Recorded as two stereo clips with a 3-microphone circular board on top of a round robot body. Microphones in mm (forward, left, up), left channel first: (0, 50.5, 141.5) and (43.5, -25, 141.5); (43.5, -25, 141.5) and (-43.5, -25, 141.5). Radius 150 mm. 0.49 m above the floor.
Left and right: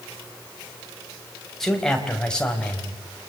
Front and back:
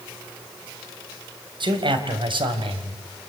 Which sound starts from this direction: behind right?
A man speaking, at 1.6 s.